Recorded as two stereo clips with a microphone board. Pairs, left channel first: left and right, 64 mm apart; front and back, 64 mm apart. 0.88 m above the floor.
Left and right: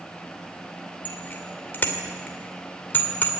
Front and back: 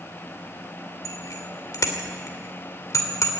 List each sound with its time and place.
1.1 s a bicycle bell: 30° left, 2.5 m